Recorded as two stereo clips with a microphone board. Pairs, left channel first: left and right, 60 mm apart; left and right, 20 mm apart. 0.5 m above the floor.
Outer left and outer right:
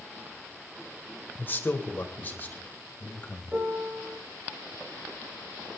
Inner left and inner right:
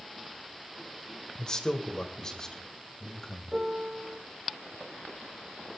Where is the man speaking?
35° left (ahead or behind), 2 m; by 3.6 s 30° left (ahead or behind), 3.5 m.